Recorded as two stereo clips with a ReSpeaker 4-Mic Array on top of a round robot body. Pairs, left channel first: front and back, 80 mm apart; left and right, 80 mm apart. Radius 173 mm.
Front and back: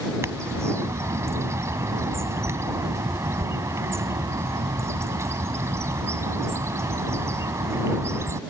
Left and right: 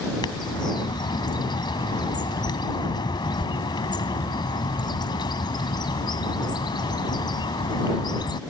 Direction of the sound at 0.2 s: 125° left.